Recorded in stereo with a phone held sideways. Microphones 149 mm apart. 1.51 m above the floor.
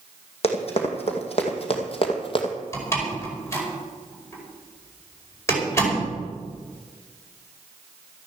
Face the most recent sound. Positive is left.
turn(degrees=20)  # may be behind; listen again after turning